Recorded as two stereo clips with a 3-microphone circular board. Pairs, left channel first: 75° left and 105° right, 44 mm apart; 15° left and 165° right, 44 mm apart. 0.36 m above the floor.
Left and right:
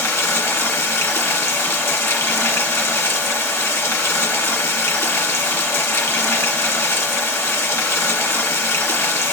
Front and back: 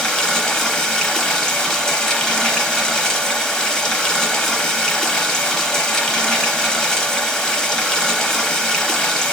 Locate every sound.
0.0 s running water: 90° left, 0.9 m